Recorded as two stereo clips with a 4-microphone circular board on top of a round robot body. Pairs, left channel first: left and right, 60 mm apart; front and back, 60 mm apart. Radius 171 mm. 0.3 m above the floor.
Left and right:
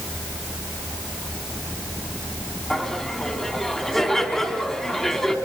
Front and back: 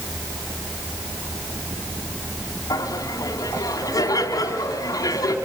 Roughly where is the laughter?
Ahead.